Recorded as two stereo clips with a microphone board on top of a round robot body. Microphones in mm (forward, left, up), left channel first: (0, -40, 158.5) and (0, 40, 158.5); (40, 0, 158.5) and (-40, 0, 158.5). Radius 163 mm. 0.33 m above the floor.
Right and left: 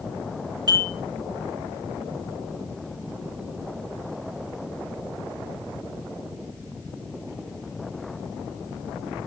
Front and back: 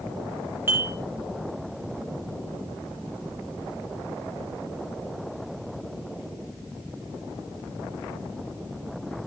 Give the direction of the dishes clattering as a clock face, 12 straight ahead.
8 o'clock.